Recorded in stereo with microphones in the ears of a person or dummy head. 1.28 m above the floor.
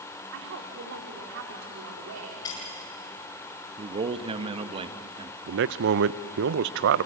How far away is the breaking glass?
About 9.5 m.